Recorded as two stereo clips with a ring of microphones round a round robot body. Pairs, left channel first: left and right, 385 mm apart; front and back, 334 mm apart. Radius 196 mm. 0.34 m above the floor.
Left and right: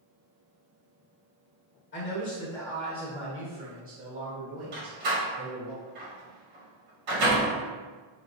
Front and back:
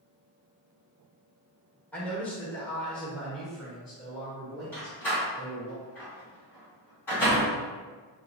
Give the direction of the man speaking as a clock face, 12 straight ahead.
9 o'clock.